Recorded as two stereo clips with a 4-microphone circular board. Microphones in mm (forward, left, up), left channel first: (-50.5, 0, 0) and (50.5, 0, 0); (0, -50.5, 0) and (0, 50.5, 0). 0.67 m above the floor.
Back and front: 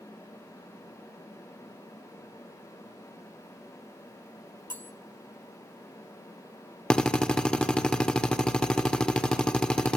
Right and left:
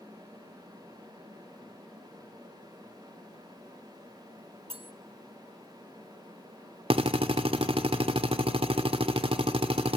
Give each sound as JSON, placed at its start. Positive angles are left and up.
{"t": 4.7, "sound": "cutlery clinking", "azimuth_deg": 110, "distance_m": 1.8}
{"t": 6.9, "sound": "a drill", "azimuth_deg": 100, "distance_m": 1.8}